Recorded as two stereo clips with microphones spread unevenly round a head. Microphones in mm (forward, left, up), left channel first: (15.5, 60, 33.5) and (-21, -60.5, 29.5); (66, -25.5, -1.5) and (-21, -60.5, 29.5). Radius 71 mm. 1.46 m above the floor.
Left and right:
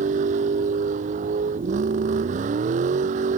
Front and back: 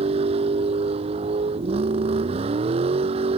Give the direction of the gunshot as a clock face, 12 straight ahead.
I don't hear a gunshot.